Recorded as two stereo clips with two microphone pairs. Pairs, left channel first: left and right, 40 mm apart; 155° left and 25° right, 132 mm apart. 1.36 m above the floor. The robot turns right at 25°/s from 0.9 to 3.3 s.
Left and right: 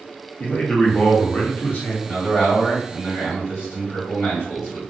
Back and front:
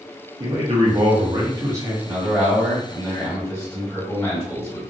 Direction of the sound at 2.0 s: 50° left.